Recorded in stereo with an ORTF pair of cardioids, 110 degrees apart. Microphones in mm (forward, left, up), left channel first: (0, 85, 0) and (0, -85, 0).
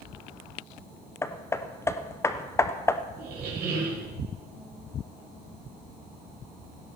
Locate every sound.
1.2 s hammering: 15° left, 0.9 m
3.2 s a squeak: 70° right, 4.5 m